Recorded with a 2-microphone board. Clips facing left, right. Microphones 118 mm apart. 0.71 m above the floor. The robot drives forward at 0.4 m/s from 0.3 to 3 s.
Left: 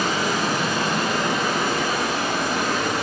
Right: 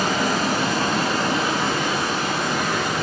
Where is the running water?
45° right (ahead or behind), 1.0 m; by 3.0 s 20° right (ahead or behind), 1.8 m.